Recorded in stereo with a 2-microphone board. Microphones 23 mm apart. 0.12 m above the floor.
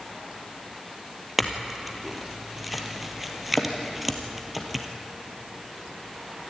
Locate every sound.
1.4 s a clink: centre (ahead or behind), 2 m